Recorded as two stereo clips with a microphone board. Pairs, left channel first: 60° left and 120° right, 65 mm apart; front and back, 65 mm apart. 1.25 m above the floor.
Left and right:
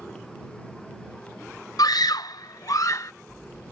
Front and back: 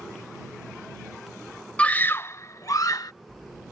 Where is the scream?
70° left; by 3.1 s 20° left.